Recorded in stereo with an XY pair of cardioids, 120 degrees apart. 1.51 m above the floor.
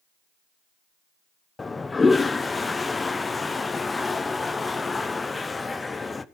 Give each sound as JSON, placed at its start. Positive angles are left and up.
{"t": 1.6, "sound": "a toilet flushing", "azimuth_deg": 20, "distance_m": 1.0}